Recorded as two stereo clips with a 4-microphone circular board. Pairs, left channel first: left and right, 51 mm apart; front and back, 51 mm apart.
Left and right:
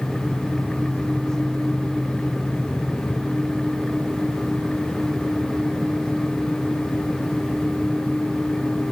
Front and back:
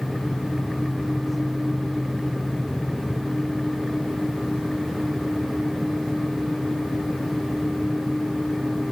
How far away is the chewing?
No chewing in this recording.